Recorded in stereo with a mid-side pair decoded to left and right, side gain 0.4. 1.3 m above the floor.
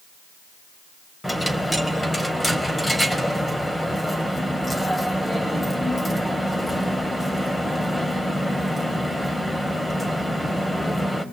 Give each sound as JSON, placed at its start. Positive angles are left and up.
{"t": 1.2, "sound": "a dropped coin", "azimuth_deg": 15, "distance_m": 3.5}